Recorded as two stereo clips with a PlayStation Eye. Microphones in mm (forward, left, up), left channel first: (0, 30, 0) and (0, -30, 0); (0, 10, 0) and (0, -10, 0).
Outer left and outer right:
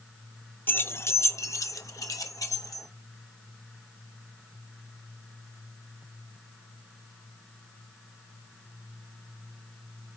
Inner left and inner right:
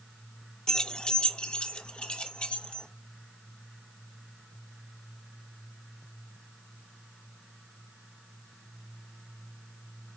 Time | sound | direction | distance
0.7 | keys jangling | 30° left (ahead or behind) | 0.6 m